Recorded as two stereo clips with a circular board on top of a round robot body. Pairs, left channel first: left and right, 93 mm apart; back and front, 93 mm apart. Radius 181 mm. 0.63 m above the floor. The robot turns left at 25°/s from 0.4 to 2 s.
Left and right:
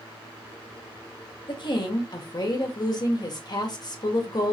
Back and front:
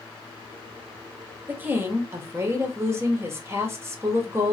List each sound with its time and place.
1.5 s a woman speaking: 70° left, 1.7 m; by 4.5 s 55° left, 1.7 m